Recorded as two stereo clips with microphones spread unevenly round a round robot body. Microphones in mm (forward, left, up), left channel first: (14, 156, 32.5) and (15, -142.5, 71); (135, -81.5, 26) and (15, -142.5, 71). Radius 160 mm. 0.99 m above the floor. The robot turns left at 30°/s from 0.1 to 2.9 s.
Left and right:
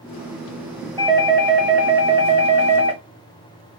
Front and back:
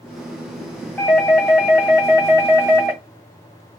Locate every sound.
1.0 s a doorbell: 25° right, 1.8 m; by 3.0 s 80° right, 1.8 m